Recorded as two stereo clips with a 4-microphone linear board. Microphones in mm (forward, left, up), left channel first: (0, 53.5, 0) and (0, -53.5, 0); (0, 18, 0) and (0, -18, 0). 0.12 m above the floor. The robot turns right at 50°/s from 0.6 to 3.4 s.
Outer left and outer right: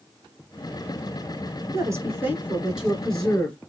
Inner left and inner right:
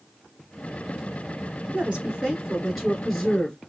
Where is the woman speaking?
60° right, 1.6 m; by 3.6 s 20° left, 1.6 m.